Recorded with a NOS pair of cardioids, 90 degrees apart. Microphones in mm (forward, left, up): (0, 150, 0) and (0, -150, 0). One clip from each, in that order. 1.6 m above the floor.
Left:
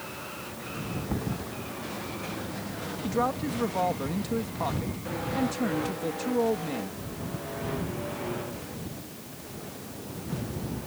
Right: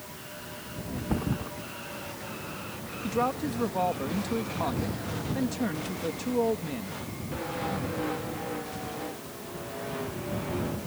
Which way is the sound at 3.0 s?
Straight ahead.